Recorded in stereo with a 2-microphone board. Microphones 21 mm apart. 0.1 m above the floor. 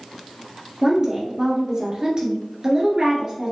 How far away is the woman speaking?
About 1.6 m.